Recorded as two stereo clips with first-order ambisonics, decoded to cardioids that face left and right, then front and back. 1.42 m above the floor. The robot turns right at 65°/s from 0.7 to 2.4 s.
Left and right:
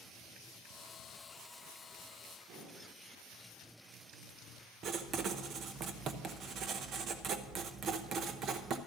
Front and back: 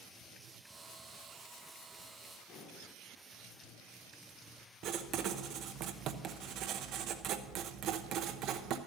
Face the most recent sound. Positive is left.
turn(degrees=-140)